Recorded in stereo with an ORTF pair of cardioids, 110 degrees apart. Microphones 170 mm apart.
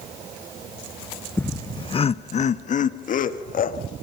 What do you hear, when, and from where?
1.4 s laughter: 10° left, 0.7 m; by 3.8 s 55° left, 2 m